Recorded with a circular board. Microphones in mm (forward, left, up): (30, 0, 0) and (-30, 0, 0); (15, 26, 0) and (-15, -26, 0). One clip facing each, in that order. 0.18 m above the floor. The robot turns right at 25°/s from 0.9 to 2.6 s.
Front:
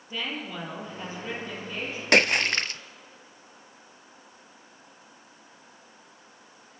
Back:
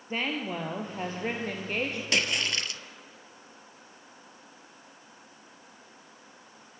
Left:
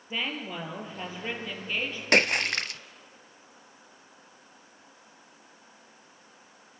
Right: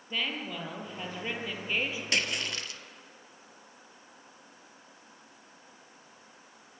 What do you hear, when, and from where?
0.1 s a woman speaking: 135° left, 4 m; by 2.0 s 165° left, 4 m
2.1 s a splash: 25° left, 0.6 m; by 2.8 s 40° left, 0.6 m